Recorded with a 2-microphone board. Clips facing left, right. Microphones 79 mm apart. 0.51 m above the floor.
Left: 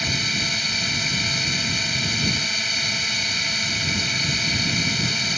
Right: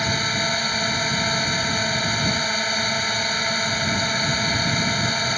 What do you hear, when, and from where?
0.0 s a drone: 40° right (ahead or behind)